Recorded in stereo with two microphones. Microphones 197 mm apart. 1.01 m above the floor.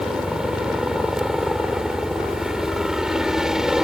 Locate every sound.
0.0 s a helicopter: 5° right (ahead or behind)